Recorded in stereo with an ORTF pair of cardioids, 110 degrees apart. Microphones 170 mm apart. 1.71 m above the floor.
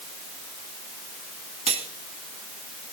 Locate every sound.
1.7 s cutlery clinking: 35° right, 2.5 m